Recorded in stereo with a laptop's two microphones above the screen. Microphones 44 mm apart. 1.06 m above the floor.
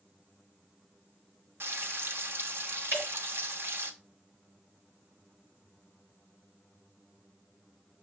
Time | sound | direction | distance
1.6 | frying | 55° right (ahead or behind) | 0.9 m
2.9 | dripping | 55° right (ahead or behind) | 5 m